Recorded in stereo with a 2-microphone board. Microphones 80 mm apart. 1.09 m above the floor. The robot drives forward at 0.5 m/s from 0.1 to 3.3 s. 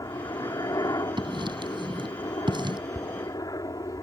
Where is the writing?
90° right; by 2.8 s 80° right.